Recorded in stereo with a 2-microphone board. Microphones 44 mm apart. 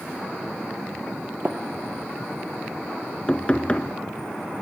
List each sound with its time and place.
1.4 s tapping: 45° right (ahead or behind), 2 m
3.3 s knocking: 25° left (ahead or behind), 1.2 m